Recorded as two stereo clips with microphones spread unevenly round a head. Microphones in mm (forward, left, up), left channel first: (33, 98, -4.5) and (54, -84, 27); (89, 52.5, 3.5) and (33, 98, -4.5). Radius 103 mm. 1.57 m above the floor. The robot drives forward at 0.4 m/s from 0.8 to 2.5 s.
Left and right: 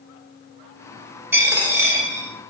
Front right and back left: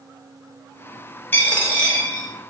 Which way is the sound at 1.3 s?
35° right.